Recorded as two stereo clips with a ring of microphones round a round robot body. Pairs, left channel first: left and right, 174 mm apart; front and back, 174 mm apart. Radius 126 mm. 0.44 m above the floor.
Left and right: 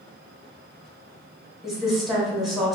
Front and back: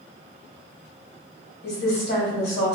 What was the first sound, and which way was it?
A woman speaking, straight ahead.